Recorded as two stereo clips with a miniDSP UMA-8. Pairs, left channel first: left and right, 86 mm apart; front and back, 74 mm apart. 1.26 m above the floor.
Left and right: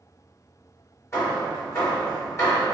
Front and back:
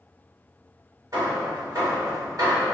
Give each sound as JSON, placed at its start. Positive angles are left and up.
{"t": 1.1, "sound": "hammering", "azimuth_deg": 145, "distance_m": 1.8}